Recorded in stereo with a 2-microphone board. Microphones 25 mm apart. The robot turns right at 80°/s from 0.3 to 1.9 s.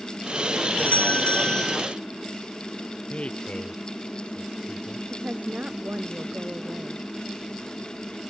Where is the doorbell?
85° left; by 1.8 s 165° left.